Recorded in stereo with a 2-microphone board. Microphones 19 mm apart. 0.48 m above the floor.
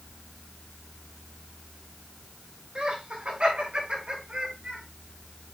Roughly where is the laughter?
Right.